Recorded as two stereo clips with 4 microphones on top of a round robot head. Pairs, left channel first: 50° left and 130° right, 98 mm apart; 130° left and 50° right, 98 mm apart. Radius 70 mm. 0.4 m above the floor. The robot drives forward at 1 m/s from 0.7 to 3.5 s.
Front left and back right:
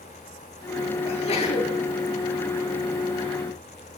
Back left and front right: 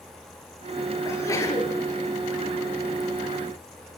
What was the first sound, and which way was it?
A sneeze, 70° left.